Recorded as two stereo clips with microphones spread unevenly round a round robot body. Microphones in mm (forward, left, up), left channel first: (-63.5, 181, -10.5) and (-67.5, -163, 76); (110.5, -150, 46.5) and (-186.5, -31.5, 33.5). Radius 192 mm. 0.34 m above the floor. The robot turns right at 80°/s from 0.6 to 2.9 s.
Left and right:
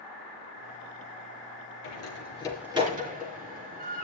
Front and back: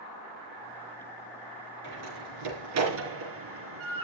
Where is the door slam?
115° left, 4.5 m; by 4.0 s 160° right, 4.5 m.